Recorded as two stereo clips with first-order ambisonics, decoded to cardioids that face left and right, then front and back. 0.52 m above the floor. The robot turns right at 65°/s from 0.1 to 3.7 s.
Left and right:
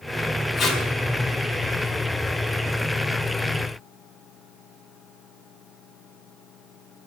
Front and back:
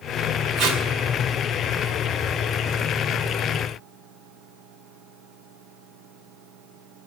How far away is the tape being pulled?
About 2 m.